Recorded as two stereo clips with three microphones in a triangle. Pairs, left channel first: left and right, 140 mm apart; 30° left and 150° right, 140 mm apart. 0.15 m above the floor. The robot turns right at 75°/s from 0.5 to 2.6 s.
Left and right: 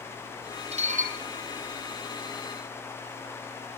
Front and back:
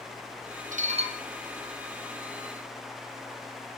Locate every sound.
0.7 s dishes clattering: 130° right, 3 m; by 1.2 s 95° right, 3 m